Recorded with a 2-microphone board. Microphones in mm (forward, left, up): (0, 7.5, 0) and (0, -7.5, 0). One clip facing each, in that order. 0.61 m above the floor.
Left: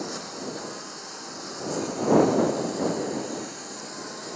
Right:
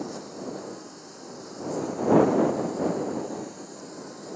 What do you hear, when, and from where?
0.0 s a lawn mower: 45° left (ahead or behind)